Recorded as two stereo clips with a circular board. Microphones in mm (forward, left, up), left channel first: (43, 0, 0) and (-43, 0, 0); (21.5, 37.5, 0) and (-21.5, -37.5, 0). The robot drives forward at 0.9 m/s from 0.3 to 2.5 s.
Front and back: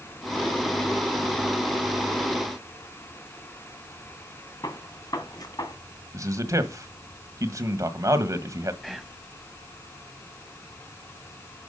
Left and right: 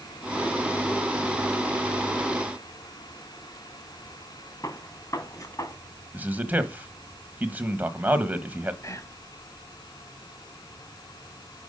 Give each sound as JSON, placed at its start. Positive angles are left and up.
{"t": 4.6, "sound": "a gunshot", "azimuth_deg": 20, "distance_m": 1.9}
{"t": 6.1, "sound": "a man speaking", "azimuth_deg": 180, "distance_m": 1.3}
{"t": 8.8, "sound": "whispering", "azimuth_deg": 90, "distance_m": 1.3}